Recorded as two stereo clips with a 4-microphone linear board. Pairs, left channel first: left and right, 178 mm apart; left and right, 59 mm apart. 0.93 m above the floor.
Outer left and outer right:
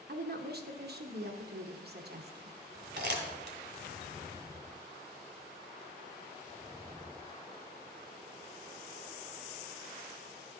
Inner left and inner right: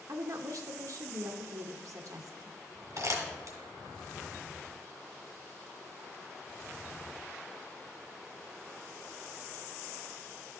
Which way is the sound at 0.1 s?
65° right (ahead or behind).